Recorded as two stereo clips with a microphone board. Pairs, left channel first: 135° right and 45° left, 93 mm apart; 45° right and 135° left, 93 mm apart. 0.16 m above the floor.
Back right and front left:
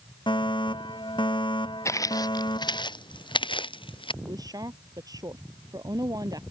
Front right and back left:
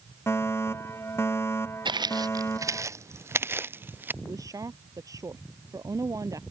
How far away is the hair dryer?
No hair dryer in this recording.